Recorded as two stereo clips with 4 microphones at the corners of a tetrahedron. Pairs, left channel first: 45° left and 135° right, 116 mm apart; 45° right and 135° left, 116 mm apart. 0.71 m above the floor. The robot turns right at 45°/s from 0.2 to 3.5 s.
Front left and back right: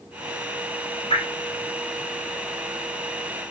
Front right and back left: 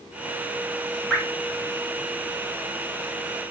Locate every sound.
1.1 s dripping: 40° left, 1.5 m; by 1.2 s 45° left, 1.5 m